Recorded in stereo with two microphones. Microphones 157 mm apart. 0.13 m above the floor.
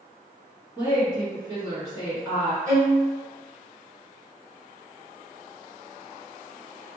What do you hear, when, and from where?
0.8 s a woman speaking: 15° right (ahead or behind), 1.2 m
2.7 s a violin: 60° right (ahead or behind), 1.3 m